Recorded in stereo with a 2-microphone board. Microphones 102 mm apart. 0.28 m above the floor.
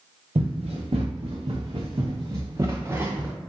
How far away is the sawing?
No sawing in this recording.